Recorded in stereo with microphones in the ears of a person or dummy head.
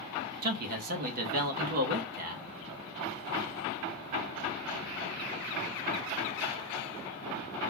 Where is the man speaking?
45° right (ahead or behind), 0.6 m.